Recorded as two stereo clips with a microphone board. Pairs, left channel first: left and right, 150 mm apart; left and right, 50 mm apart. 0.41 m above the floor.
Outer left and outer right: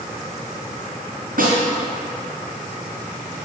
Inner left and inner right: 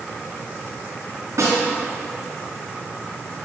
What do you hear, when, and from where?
1.4 s a snare drum: 75° right (ahead or behind), 4 m